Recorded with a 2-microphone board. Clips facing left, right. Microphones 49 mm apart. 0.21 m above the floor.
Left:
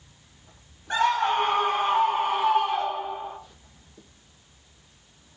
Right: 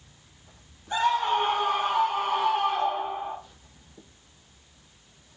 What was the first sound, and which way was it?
A scream, 55° left (ahead or behind).